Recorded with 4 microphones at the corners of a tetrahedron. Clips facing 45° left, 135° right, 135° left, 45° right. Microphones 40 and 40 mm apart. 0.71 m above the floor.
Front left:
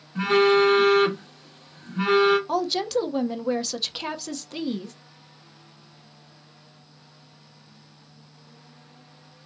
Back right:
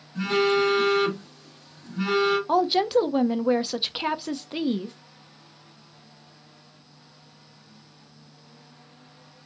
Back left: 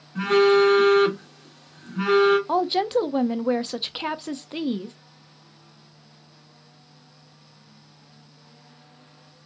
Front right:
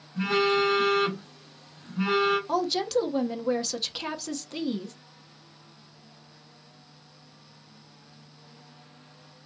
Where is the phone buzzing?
105° left, 1.9 m.